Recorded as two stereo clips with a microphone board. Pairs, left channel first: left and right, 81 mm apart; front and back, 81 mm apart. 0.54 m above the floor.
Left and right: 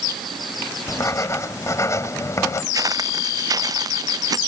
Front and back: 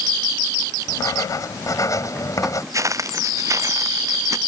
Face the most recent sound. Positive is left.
turn(degrees=-130)